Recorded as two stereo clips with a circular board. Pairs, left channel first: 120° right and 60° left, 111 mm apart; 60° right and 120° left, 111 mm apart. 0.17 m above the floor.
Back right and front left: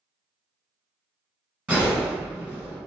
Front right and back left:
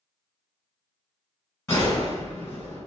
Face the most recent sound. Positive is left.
turn(degrees=-10)